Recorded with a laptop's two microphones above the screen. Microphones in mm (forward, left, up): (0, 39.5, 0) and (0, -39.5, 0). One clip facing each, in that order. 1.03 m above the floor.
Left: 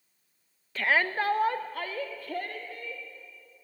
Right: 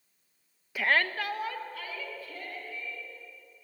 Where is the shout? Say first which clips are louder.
Left 1 dB; 10° right (ahead or behind), 0.7 m; by 3.0 s 70° left (ahead or behind), 3 m.